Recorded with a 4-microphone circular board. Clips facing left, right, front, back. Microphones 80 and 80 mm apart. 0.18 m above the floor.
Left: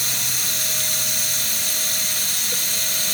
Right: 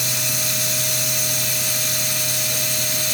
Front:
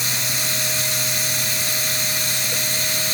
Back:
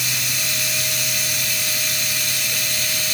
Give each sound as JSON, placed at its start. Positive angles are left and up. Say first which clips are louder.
{"t": 0.0, "sound": "running water", "louder": "right 3 dB, front 1 dB", "azimuth_deg": 60, "distance_m": 4.5}